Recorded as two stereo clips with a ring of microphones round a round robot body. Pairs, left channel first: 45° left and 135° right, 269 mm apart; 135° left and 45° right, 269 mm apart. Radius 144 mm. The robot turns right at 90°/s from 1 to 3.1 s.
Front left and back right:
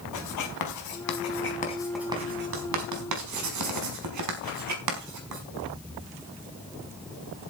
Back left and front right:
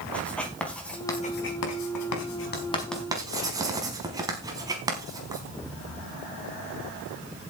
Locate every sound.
0.1 s writing: 50° left, 4.5 m; by 5.4 s 120° right, 4.5 m